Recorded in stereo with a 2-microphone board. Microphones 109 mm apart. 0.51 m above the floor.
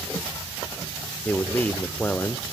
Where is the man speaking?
15° left (ahead or behind), 1.3 m.